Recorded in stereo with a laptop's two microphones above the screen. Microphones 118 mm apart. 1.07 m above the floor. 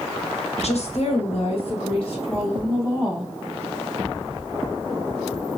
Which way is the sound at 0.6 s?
60° left (ahead or behind).